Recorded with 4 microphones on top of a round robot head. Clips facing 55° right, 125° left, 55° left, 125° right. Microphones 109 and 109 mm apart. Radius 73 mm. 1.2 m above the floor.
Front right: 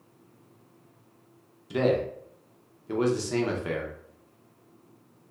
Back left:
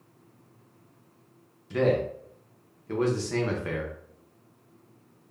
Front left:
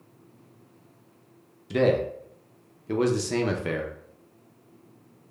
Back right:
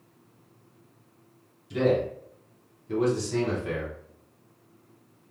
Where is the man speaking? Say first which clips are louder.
Even, front left 2 dB; 20° left, 0.5 m.